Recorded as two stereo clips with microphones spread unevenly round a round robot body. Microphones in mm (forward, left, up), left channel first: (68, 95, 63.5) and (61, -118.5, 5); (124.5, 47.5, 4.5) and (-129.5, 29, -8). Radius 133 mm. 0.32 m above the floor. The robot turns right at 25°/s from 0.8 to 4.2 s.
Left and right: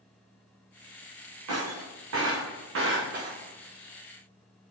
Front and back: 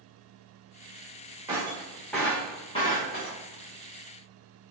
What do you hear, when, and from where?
1.5 s breaking glass: 100° right, 3.5 m; by 3.4 s 50° right, 3.5 m